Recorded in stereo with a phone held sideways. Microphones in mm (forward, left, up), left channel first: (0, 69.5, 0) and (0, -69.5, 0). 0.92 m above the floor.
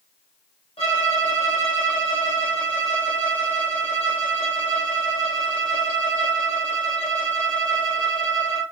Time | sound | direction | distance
0.8 | a violin | 45° left (ahead or behind) | 3 m